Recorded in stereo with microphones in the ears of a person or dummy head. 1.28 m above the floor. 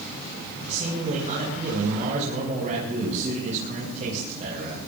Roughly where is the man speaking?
Right.